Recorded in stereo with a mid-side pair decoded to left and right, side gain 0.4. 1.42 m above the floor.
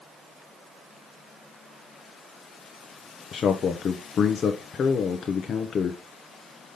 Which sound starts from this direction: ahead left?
A man speaking, at 3.3 s.